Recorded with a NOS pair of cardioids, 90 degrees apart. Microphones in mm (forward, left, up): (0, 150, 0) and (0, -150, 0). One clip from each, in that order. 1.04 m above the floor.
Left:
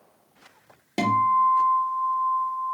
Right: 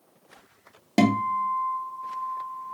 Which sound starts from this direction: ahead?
A guitar, at 1.0 s.